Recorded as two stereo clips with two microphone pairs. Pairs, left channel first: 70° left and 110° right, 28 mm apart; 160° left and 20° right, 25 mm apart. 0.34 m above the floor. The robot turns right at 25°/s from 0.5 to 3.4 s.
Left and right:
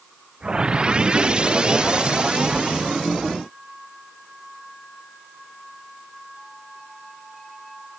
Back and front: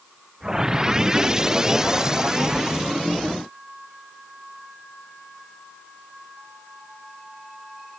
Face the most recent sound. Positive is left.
No sound to turn to.